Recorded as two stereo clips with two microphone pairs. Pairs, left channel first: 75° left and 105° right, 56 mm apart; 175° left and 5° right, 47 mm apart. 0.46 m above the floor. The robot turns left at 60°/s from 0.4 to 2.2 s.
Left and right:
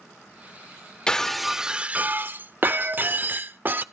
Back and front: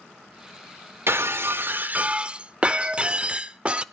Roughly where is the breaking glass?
Ahead.